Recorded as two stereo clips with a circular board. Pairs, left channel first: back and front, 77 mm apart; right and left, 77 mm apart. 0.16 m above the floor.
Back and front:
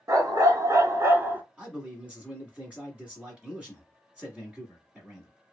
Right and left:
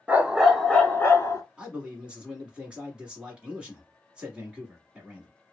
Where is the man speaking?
40° left, 1.4 m.